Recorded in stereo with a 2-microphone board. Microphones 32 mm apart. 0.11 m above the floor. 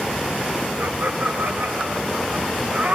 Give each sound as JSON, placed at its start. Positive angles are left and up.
{"t": 0.8, "sound": "laughter", "side_deg": -65, "distance_m": 6.5}